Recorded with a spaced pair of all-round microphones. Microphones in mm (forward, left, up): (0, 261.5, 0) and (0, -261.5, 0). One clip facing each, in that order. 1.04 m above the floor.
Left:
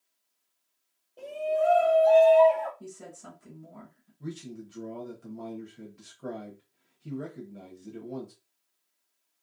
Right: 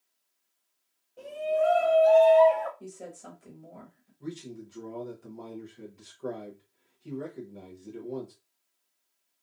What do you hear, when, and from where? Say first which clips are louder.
1.2 s a shout: even; 30° right (ahead or behind), 0.6 m; by 2.7 s 60° right (ahead or behind), 1.1 m
2.8 s a woman speaking: right 2 dB; 25° left (ahead or behind), 1.3 m
4.2 s a man speaking: even; 35° left (ahead or behind), 0.7 m